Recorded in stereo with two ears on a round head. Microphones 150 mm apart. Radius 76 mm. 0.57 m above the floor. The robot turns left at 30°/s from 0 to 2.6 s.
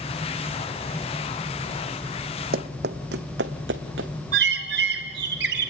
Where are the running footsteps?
60° right (ahead or behind), 1.3 m; by 4.1 s 75° right (ahead or behind), 2.5 m.